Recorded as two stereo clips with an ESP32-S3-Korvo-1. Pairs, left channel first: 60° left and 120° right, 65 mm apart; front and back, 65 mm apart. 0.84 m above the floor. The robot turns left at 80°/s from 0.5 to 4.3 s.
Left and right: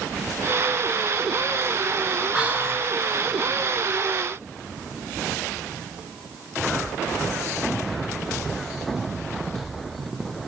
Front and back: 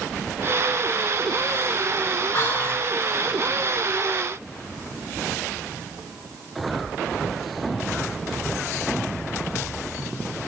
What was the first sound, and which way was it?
Whispering, 45° right.